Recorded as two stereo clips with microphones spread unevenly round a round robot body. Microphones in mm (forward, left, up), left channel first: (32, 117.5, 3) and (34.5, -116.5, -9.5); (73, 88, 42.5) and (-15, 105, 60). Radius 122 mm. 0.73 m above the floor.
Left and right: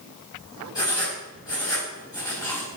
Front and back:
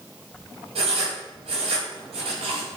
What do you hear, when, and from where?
0.8 s writing: 165° left, 4 m